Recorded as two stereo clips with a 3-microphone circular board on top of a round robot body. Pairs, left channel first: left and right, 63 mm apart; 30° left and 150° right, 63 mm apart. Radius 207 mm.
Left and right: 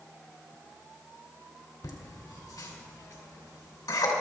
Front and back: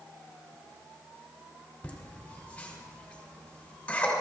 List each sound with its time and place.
1.8 s laughter: 100° left, 3 m